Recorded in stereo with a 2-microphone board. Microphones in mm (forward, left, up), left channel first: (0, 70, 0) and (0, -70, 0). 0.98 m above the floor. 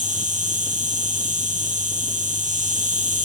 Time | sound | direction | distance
0.0 | an insect | 65° right (ahead or behind) | 1.4 m